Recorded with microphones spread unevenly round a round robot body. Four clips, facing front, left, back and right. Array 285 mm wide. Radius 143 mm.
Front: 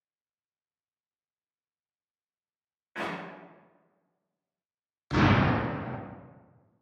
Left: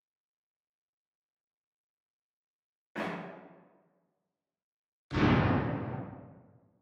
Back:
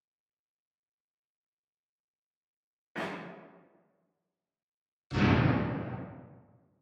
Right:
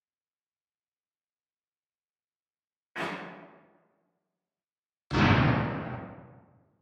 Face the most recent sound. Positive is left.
turn(degrees=-40)